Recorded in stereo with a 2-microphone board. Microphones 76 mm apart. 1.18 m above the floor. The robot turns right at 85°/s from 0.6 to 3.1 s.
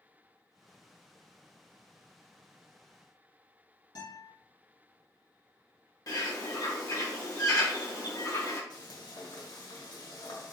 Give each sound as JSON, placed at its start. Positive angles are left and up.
{"t": 4.0, "sound": "a guitar", "side_deg": 60, "distance_m": 1.8}
{"t": 6.1, "sound": "a bird", "side_deg": 50, "distance_m": 1.4}
{"t": 8.7, "sound": "frying", "side_deg": 65, "distance_m": 1.8}